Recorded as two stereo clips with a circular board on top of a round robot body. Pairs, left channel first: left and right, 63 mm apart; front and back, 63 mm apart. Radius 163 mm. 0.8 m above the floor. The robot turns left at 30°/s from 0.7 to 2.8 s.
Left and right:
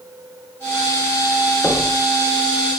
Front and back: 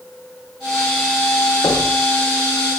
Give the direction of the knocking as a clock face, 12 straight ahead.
11 o'clock.